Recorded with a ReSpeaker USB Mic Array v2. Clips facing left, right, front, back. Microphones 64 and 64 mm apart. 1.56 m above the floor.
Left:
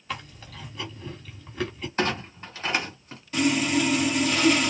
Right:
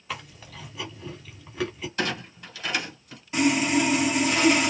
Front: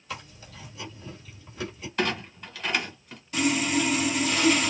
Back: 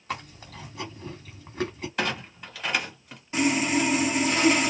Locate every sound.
0.1 s chewing: 175° right, 1.5 m
2.0 s a clunk: 100° left, 1.6 m
3.3 s sawing: 145° right, 1.1 m